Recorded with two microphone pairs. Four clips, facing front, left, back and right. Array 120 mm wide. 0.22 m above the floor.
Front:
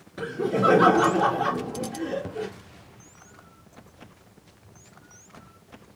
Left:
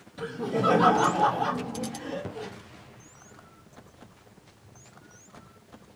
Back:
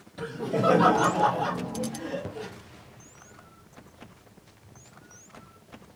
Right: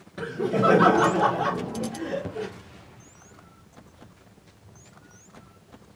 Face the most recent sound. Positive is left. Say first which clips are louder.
# right 4 dB, front 3 dB
turn(degrees=-45)